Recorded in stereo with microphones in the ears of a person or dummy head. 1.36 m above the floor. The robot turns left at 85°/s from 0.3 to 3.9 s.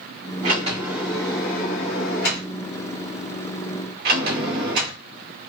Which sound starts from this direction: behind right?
A sliding door, at 0.4 s.